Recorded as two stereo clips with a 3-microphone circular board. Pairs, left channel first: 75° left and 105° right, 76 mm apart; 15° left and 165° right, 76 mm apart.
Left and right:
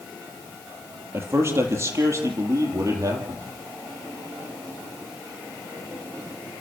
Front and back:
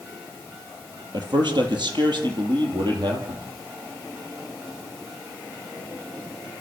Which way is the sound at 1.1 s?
160° right.